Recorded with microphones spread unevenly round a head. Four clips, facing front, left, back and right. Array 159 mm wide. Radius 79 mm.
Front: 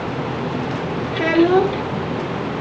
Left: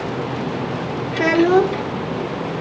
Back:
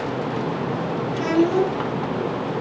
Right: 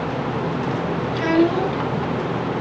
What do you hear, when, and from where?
1.1 s a child speaking: 55° left, 1.7 m